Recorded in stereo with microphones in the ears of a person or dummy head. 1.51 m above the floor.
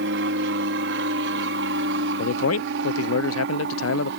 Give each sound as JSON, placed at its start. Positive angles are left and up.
{"t": 0.0, "sound": "an aircraft", "side_deg": -60}
{"t": 2.2, "sound": "a man speaking", "side_deg": 80}